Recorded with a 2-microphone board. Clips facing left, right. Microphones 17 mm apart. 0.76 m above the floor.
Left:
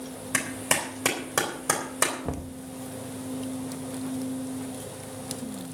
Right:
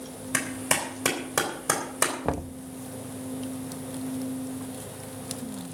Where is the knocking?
45° right (ahead or behind), 0.5 m.